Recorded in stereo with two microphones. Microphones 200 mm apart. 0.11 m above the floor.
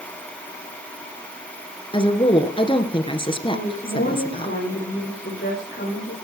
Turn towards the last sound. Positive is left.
turn(degrees=60)  # may be behind; listen again after turning